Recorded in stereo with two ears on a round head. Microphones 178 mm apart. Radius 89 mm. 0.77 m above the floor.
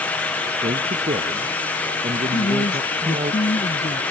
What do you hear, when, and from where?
0.6 s a man speaking: 30° right (ahead or behind)
2.3 s a woman speaking: 30° left (ahead or behind)